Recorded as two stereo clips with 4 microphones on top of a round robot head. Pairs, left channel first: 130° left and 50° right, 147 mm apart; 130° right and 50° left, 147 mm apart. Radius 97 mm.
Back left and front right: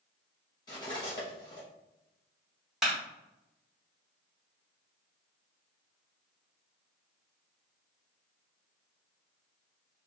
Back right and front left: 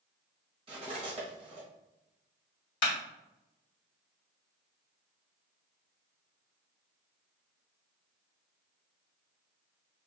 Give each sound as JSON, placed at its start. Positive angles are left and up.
{"t": 0.7, "sound": "cutlery clinking", "azimuth_deg": 80, "distance_m": 1.0}
{"t": 2.8, "sound": "a clap", "azimuth_deg": -140, "distance_m": 1.7}